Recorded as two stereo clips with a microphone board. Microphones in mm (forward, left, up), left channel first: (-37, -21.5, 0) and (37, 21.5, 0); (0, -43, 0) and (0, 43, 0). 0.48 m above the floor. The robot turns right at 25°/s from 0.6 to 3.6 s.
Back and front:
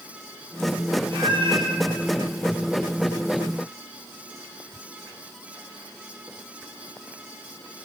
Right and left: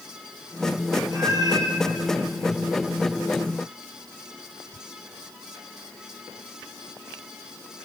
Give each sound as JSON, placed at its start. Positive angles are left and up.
{"t": 1.1, "sound": "a cat meowing", "azimuth_deg": 40, "distance_m": 5.0}